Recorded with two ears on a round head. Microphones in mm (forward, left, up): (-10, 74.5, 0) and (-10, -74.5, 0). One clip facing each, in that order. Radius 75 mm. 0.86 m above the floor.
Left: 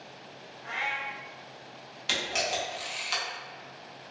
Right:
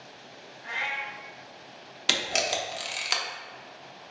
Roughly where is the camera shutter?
Right.